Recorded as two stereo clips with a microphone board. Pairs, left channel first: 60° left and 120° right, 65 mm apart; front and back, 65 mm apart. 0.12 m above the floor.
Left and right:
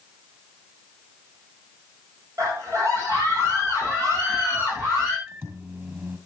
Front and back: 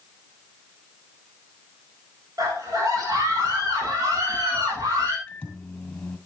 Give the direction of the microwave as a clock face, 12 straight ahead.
2 o'clock.